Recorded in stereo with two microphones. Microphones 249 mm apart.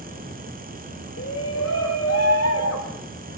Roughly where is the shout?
Left.